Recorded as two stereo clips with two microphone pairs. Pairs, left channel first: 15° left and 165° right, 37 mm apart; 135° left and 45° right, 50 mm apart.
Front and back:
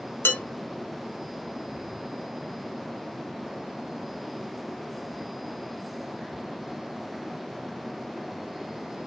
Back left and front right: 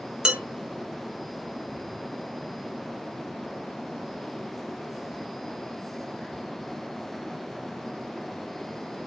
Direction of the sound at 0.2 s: 30° left.